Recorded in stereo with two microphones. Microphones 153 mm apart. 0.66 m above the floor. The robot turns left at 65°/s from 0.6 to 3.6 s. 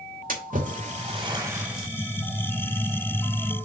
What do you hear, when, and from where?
0.3 s a splash: 60° right (ahead or behind), 2.0 m; by 1.9 s 5° left (ahead or behind), 2.0 m